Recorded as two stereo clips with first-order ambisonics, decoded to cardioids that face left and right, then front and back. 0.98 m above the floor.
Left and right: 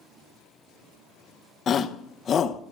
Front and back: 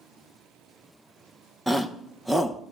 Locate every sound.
1.7 s a shout: 95° left, 0.7 m